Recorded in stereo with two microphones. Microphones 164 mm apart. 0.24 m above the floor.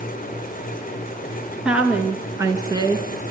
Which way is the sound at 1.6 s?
5° right (ahead or behind).